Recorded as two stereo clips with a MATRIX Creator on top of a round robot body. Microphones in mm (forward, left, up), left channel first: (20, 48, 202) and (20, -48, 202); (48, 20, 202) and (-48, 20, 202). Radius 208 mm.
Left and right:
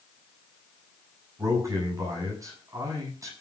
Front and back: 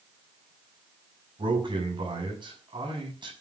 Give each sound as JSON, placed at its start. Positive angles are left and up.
{"t": 1.4, "sound": "a man speaking", "azimuth_deg": -145, "distance_m": 7.5}